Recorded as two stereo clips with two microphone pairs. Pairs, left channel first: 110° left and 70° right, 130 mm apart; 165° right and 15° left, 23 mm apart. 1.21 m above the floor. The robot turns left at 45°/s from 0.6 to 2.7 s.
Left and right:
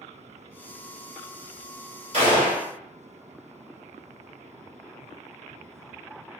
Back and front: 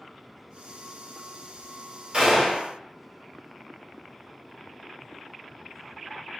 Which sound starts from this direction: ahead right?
A gunshot, at 2.1 s.